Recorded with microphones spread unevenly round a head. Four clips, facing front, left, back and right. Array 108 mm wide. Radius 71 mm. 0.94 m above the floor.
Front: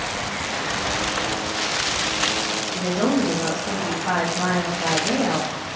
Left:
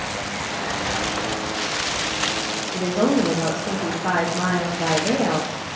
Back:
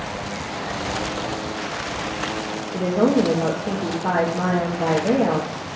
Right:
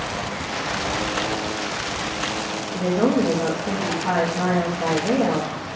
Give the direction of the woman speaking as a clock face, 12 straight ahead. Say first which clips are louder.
Even, back 4 dB; 6 o'clock.